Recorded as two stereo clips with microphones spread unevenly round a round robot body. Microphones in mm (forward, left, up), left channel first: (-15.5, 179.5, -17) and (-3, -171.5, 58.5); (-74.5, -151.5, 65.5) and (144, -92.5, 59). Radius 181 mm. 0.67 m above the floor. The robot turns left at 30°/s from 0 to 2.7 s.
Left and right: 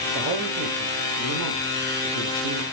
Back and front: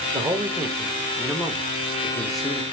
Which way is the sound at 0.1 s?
35° right.